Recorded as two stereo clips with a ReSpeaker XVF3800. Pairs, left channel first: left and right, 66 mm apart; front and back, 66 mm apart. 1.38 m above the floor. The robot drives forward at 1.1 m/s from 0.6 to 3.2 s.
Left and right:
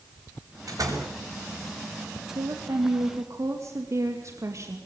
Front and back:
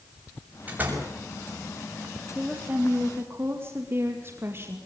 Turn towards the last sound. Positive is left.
turn(degrees=-130)